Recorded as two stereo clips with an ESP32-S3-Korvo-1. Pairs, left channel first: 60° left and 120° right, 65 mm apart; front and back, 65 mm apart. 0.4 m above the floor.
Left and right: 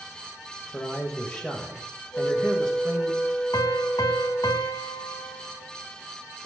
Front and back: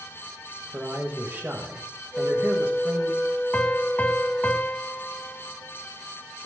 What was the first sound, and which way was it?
A man speaking, 130° left.